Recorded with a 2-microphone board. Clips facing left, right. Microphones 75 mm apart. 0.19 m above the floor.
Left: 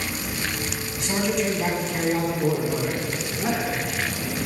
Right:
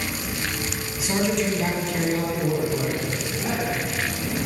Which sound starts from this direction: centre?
A man speaking, at 1.0 s.